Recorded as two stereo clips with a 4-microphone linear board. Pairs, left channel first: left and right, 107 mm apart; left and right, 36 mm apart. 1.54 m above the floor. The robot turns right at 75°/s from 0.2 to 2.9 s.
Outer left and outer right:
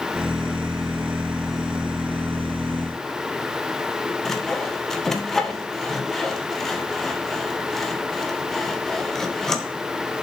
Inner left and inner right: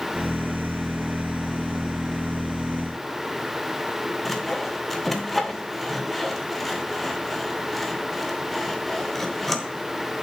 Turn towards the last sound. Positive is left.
turn(degrees=5)  # may be behind; listen again after turning